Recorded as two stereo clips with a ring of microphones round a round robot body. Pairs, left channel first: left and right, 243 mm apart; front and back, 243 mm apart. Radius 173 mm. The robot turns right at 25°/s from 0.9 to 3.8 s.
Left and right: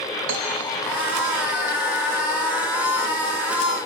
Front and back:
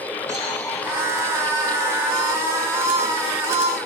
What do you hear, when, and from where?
0.3 s a cowbell: 100° right, 3 m